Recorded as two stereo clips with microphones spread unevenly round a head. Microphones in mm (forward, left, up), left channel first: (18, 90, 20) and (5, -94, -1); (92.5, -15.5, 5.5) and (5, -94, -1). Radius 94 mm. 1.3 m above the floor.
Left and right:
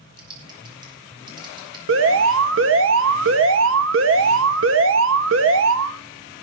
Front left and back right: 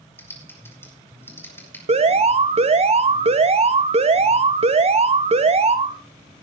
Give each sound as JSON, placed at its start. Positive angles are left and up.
{"t": 0.2, "sound": "typing on a keyboard", "azimuth_deg": -30, "distance_m": 5.5}
{"t": 1.9, "sound": "an alarm", "azimuth_deg": -110, "distance_m": 1.8}